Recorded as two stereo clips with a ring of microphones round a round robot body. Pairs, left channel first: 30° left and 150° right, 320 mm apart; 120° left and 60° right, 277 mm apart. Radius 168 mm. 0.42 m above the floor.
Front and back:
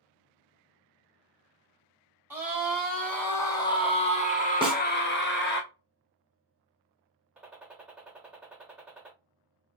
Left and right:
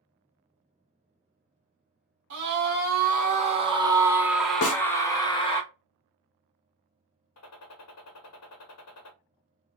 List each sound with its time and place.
2.3 s a scream: 70° right, 1.5 m; by 5.6 s 60° left, 1.5 m
4.6 s a snare drum: 135° left, 0.9 m
7.4 s a gunshot: 125° left, 0.8 m